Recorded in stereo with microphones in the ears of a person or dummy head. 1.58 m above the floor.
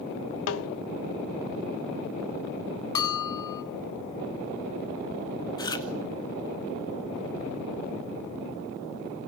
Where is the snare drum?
70° left (ahead or behind), 0.9 m.